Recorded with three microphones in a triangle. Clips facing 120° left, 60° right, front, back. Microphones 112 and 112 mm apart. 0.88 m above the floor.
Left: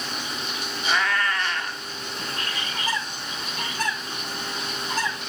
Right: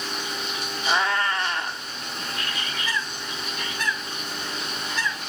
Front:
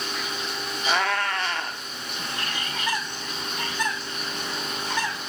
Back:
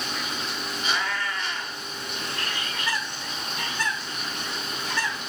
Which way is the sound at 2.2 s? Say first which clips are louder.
Even, front 1 dB; 70° left.